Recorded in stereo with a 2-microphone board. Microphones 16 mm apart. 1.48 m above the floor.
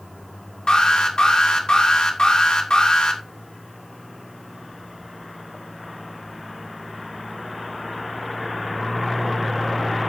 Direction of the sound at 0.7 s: 85° left.